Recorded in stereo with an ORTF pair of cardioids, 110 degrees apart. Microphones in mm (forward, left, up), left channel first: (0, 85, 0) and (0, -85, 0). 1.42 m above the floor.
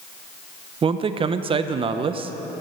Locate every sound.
0.8 s a man speaking: 35° right, 0.7 m